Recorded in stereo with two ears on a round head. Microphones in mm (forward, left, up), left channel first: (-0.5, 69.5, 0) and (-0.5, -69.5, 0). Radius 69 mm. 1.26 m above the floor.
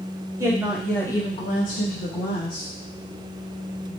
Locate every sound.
0.4 s a woman speaking: 20° right (ahead or behind), 1.1 m; by 2.7 s 65° left (ahead or behind), 1.7 m